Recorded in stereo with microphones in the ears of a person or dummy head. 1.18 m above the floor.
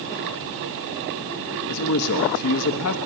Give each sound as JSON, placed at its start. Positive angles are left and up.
{"t": 1.7, "sound": "a man speaking", "side_deg": 85, "distance_m": 1.0}